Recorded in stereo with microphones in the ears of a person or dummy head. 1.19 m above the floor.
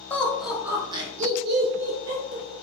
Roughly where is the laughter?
Centre.